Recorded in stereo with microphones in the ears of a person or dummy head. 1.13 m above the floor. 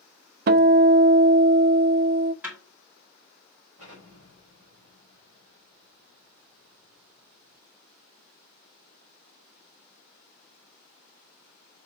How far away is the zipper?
I don't hear a zipper.